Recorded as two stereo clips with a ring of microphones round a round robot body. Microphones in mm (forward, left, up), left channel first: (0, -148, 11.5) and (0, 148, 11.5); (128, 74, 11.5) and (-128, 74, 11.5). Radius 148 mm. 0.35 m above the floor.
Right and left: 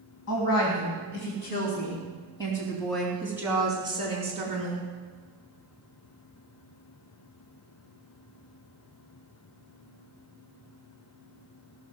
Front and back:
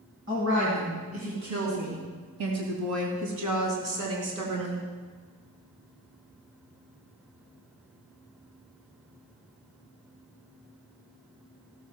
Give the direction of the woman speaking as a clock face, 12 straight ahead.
4 o'clock.